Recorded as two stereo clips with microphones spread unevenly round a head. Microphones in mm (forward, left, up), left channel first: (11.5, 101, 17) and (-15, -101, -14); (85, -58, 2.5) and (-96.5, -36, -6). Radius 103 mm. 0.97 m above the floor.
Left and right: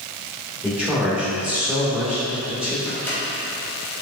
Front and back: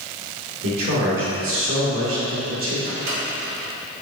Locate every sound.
0.6 s a man speaking: straight behind, 2 m
2.9 s a microwave: 165° left, 2.5 m